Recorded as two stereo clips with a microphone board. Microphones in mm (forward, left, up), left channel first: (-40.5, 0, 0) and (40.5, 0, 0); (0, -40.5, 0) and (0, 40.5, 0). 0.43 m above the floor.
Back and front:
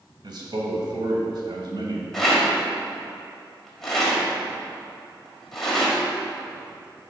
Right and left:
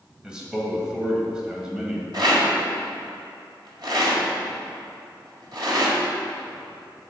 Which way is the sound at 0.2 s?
10° left.